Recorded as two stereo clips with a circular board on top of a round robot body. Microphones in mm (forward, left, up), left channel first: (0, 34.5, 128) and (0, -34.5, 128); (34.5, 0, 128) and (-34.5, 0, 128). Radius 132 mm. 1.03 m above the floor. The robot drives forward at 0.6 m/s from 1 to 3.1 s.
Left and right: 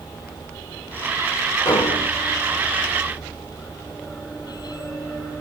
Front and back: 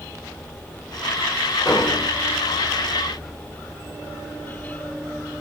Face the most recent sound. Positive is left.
turn(degrees=80)